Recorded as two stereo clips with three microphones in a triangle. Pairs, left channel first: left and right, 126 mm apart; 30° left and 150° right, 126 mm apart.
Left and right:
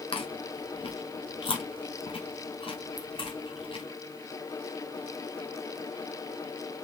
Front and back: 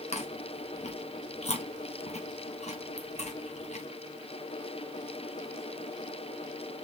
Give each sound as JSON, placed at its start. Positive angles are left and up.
{"t": 0.1, "sound": "chewing", "azimuth_deg": 50, "distance_m": 0.7}